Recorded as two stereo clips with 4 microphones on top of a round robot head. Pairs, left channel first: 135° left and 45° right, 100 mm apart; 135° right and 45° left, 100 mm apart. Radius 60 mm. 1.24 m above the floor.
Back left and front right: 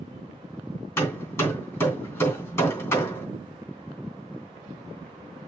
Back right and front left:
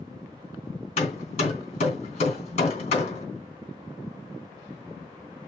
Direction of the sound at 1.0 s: 160° right.